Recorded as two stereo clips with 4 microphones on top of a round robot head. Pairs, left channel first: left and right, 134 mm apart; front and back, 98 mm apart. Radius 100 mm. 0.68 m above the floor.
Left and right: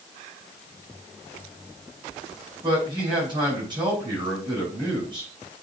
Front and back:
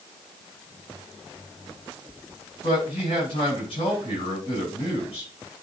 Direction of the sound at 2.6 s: 35° right.